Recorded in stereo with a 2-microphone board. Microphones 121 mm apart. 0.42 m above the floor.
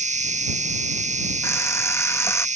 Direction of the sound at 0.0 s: 80° right.